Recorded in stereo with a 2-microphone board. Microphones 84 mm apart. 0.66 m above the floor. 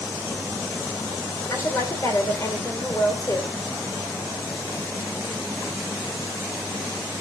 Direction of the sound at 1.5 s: 35° left (ahead or behind).